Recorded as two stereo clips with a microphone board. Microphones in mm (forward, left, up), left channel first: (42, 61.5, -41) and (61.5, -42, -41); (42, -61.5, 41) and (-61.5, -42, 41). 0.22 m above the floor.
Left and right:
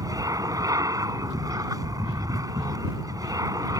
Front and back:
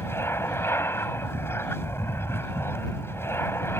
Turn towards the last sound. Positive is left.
turn(degrees=-60)